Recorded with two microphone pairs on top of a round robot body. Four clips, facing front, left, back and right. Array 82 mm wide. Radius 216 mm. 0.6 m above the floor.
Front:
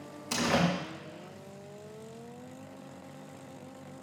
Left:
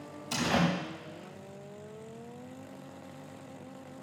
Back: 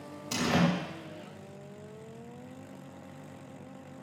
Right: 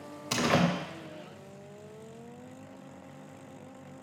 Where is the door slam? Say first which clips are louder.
Right 2 dB, even; 75° right, 2.5 m.